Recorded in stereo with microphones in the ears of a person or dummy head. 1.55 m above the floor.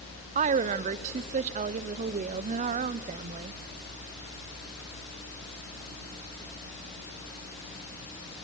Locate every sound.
0.3 s a woman speaking: 40° right (ahead or behind), 0.5 m